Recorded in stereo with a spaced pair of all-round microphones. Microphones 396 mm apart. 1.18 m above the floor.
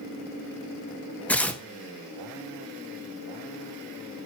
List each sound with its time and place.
1.3 s tearing paper: 5° left (ahead or behind), 0.9 m